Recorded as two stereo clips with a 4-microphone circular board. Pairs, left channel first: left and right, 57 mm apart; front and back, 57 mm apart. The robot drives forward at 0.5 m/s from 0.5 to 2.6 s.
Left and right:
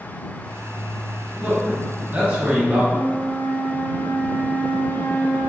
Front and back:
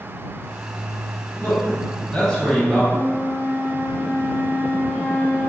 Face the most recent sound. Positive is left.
turn(degrees=90)